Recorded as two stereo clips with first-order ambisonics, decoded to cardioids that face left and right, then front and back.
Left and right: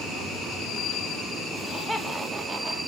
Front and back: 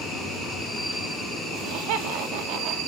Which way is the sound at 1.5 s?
170° left.